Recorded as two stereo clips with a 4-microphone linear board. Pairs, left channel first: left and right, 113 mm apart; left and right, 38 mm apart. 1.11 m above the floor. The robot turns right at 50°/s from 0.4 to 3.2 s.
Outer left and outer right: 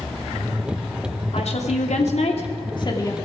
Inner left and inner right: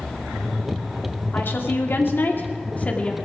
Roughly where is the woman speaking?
Ahead left.